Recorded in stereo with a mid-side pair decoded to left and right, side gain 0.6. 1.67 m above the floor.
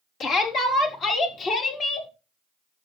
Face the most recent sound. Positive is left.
turn(degrees=40)